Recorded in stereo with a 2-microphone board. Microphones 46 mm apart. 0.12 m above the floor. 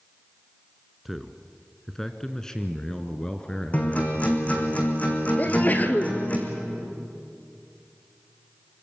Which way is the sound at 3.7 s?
30° left (ahead or behind).